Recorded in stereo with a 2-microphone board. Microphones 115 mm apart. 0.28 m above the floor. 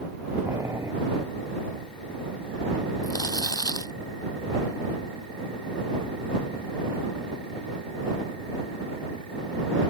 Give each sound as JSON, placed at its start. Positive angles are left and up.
{"t": 0.5, "sound": "boiling", "side_deg": -25}
{"t": 3.0, "sound": "crumpling", "side_deg": 35}